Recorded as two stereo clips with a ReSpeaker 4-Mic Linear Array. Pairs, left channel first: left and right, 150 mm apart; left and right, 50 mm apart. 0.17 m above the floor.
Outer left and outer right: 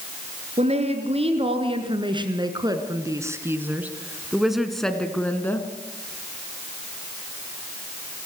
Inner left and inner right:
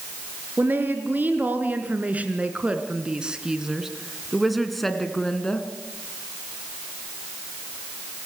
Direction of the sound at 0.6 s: 45° right (ahead or behind).